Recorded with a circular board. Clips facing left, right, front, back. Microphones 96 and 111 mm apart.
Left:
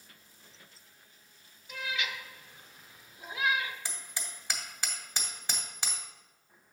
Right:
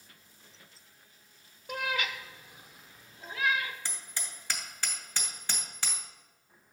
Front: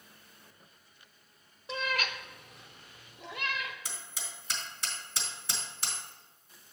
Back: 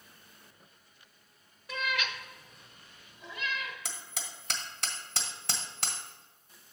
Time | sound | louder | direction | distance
1.7 | a cat meowing | right 3 dB, front 1 dB | 65° right | 0.6 m
3.9 | hammering | even, back 2 dB | 160° left | 1.3 m